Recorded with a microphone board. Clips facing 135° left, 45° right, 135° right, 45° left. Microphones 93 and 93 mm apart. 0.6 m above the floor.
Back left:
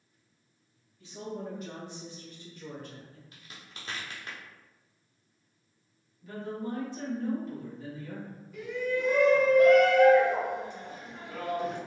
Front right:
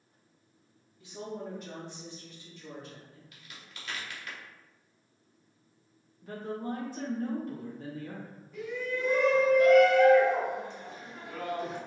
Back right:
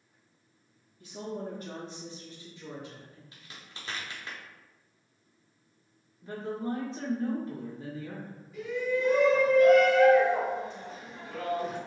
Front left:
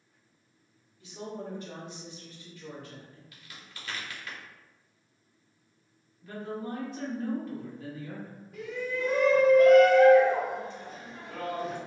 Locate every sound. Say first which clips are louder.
1.0 s a woman speaking: back left 1 dB, back right 2 dB; 110° right, 1.0 m; by 3.2 s 140° left, 1.1 m
3.3 s a crack: back left 1 dB, even; 175° left, 0.8 m
6.2 s a woman speaking: even, back right 2 dB; 80° right, 1.1 m
8.5 s a shout: back left 3 dB, back right 4 dB; 50° left, 1.9 m